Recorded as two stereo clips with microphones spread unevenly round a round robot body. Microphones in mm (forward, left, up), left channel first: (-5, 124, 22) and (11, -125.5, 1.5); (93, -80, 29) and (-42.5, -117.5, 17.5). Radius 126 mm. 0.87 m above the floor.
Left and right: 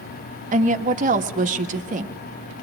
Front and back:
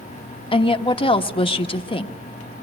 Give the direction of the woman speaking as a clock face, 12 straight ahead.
1 o'clock.